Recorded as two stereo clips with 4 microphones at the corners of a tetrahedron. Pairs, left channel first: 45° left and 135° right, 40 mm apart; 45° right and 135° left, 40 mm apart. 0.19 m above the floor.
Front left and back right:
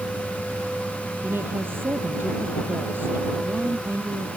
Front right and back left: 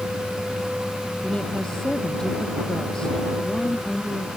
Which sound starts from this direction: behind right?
A woman speaking, at 1.2 s.